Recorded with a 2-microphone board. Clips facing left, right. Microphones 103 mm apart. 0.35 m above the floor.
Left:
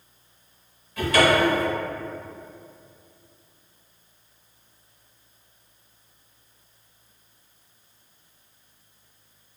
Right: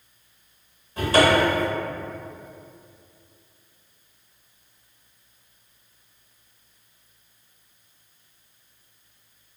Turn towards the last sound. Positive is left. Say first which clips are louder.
# right 1 dB
turn(degrees=-30)  # may be behind; listen again after turning